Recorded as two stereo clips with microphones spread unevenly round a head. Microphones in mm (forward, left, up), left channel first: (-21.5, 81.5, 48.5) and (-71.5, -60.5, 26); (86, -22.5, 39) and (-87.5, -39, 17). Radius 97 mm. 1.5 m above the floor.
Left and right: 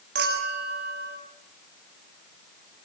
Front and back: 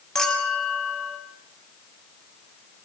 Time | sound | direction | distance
0.1 | a clink | 80° right | 7 m